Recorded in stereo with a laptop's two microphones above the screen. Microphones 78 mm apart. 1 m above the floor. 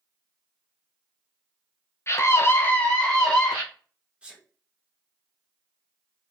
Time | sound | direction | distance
2.1 | a scream | 35° left (ahead or behind) | 0.6 m
4.2 | a sneeze | 15° right (ahead or behind) | 0.5 m